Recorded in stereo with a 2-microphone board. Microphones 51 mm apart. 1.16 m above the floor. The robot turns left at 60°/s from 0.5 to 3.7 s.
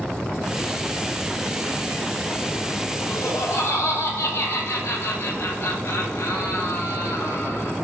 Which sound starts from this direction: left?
Laughter, at 3.1 s.